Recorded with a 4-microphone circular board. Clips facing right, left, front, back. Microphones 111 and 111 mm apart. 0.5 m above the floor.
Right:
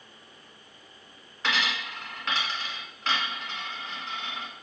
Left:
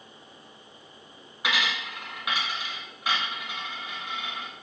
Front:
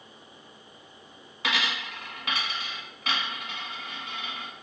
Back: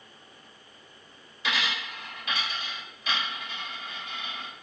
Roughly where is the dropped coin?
Ahead.